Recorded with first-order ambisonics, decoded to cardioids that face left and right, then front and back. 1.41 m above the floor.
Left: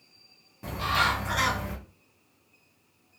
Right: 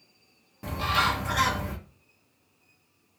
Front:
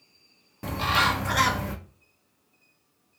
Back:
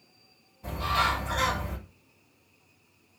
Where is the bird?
15° right, 0.6 m.